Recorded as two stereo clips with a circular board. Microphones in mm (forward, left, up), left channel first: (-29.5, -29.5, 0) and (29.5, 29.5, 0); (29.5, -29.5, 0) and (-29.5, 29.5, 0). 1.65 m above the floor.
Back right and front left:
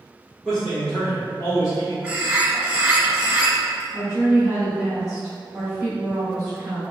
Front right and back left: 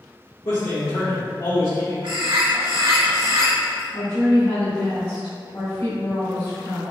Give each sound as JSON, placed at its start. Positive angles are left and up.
{"t": 0.5, "sound": "a man speaking", "azimuth_deg": -45, "distance_m": 1.4}
{"t": 2.0, "sound": "a bird", "azimuth_deg": 115, "distance_m": 1.1}
{"t": 3.9, "sound": "a woman speaking", "azimuth_deg": -40, "distance_m": 1.4}